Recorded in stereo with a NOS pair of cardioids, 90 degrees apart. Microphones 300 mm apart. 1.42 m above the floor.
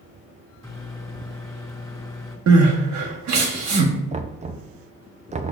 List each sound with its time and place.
0.6 s a microwave: 10° left, 2 m
2.5 s crying: 60° right, 1.3 m
4.1 s knocking: 25° right, 0.5 m